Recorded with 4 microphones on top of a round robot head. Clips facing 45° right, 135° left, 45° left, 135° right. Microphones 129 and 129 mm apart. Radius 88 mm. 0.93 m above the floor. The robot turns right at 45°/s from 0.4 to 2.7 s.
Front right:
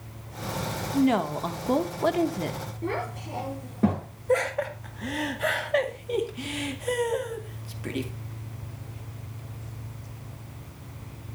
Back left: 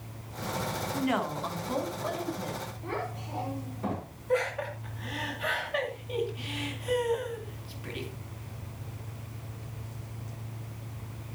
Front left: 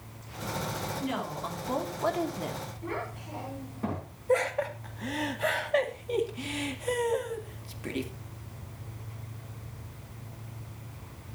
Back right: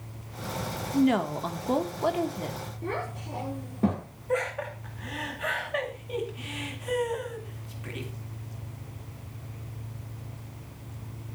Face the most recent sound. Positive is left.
turn(degrees=-5)